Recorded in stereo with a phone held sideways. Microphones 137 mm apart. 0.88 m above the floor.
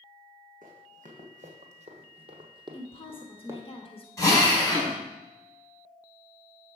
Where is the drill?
20° left (ahead or behind), 3.5 m.